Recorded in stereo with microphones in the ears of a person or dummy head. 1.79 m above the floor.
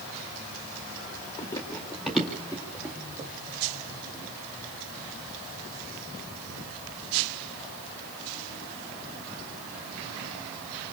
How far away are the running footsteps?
About 1.9 m.